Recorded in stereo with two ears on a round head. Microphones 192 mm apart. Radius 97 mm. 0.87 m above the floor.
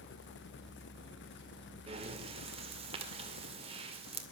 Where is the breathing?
30° right (ahead or behind), 2 m.